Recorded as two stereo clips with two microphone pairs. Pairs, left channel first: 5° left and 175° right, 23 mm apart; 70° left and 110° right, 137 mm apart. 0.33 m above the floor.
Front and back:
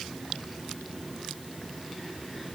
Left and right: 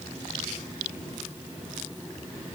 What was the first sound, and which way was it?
Only background noise.